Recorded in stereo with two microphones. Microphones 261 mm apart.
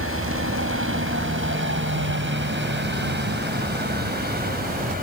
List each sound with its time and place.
0.0 s a helicopter: 55° right (ahead or behind); by 5.0 s 35° right (ahead or behind)